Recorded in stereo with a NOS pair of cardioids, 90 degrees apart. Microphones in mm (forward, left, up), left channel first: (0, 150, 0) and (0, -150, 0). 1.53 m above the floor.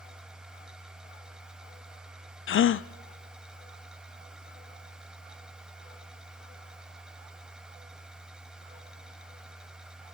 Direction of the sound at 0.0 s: Straight ahead.